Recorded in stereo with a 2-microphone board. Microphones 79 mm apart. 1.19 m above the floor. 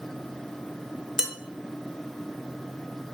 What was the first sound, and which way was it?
Dishes clattering, 5° right (ahead or behind).